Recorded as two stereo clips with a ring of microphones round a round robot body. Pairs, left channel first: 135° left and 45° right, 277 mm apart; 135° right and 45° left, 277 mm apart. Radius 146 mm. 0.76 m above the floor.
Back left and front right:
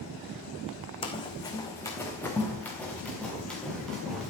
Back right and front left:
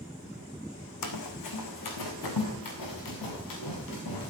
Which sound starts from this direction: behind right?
Running footsteps, at 1.0 s.